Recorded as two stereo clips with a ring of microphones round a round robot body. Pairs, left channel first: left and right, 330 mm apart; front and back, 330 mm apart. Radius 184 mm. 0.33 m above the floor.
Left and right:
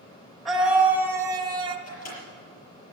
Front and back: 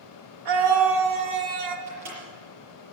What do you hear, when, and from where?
0.5 s a scream: straight behind, 3 m; by 1.8 s 165° right, 2.5 m
1.9 s a microwave: 135° left, 6.5 m